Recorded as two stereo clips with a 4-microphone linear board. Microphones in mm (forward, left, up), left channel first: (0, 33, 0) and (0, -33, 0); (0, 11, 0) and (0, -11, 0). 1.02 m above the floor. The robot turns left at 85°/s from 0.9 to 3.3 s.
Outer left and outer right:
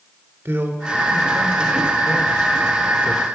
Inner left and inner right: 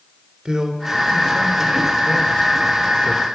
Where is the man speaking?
40° right (ahead or behind), 2.5 m; by 3.2 s 20° left (ahead or behind), 2.5 m.